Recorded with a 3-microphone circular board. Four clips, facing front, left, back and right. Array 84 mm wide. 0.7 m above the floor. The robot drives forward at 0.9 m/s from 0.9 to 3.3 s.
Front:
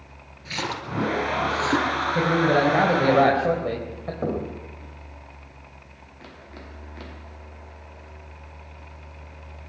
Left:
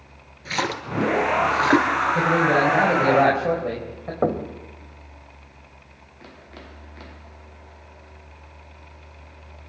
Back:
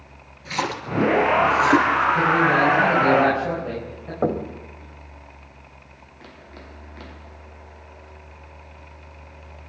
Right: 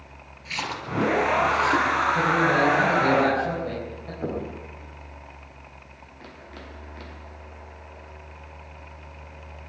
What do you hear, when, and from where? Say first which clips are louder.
0.5 s a splash: left 5 dB, back 4 dB; 95° left, 3.5 m; by 2.0 s 110° left, 3.5 m
2.1 s a man speaking: left 3 dB, front 2 dB; 35° left, 4.5 m; by 4.1 s 45° left, 4 m
4.2 s knocking: left 7 dB, back 5 dB; 115° left, 2.5 m